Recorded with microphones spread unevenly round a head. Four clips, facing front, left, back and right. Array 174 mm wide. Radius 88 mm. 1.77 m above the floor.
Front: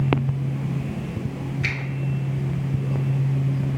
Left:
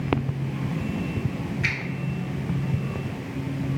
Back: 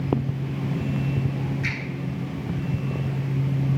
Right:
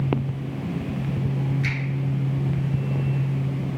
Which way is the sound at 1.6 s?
15° left.